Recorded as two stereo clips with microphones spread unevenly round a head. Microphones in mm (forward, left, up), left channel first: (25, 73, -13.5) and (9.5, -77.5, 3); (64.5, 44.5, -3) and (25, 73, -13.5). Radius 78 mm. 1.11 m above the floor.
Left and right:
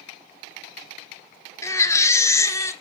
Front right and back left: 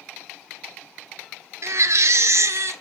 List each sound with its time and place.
1.6 s a baby crying: 155° left, 0.9 m